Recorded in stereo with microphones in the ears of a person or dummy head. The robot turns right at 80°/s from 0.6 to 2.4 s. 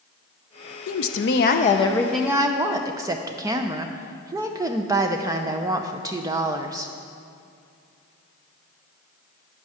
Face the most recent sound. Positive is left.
turn(degrees=-160)